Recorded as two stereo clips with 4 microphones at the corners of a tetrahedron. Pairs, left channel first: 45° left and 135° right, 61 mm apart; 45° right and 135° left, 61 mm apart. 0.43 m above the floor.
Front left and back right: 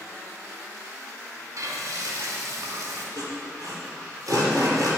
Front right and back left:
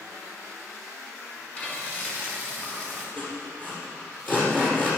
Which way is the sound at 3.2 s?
110° right.